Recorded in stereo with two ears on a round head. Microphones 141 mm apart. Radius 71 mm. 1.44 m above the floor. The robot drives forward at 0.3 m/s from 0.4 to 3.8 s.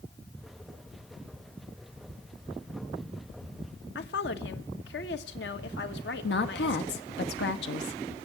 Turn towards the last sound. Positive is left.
turn(degrees=75)  # may be behind; listen again after turning